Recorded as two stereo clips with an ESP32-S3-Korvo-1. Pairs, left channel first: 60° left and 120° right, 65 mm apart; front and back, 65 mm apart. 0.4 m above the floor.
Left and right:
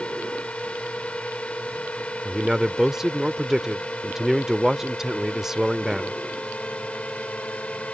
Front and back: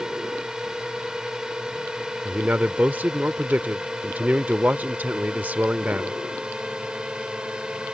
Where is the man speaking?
165° left.